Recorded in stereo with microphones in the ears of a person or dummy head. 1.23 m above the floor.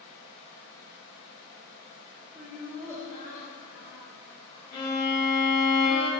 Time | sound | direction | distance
2.4 | laughter | 10° right (ahead or behind) | 0.6 m
4.7 | a violin | 40° left (ahead or behind) | 1.6 m